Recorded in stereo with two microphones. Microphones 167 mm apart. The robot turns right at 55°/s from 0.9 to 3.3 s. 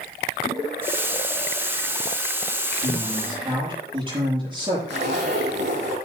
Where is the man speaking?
55° right (ahead or behind), 6 m; by 4.8 s 25° right (ahead or behind), 6 m.